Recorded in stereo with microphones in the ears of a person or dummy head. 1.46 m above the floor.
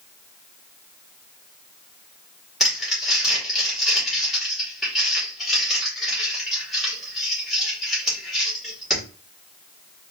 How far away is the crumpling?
About 2.5 m.